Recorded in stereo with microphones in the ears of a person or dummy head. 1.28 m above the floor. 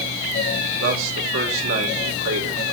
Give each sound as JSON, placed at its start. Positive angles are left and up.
{"t": 0.8, "sound": "a man speaking", "side_deg": -85, "distance_m": 4.5}